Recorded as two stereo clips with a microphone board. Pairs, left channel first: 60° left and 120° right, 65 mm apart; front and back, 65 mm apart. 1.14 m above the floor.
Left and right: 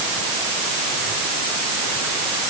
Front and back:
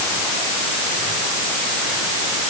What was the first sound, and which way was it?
Only background noise.